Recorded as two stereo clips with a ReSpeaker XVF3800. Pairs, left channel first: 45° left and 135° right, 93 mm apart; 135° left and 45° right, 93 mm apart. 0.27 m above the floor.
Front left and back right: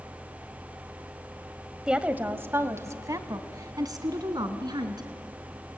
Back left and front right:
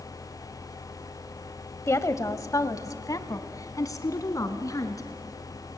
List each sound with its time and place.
1.9 s a woman speaking: 150° left, 1.1 m; by 5.0 s 175° right, 3 m